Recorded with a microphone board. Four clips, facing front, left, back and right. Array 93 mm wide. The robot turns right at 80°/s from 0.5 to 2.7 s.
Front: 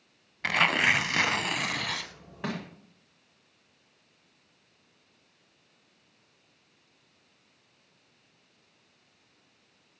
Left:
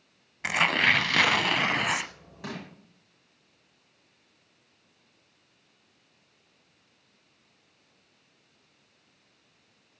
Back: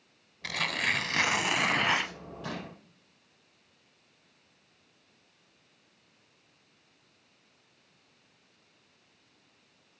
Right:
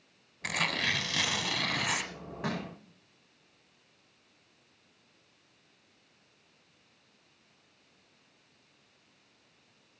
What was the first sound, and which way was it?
Tearing paper, 30° left.